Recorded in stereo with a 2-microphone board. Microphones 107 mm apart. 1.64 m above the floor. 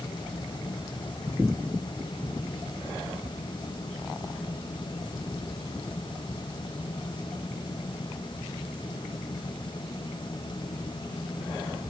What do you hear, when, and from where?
Only background noise.